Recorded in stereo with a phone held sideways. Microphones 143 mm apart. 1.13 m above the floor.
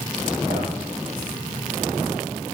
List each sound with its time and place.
0.5 s a man speaking: 45° right (ahead or behind), 6.5 m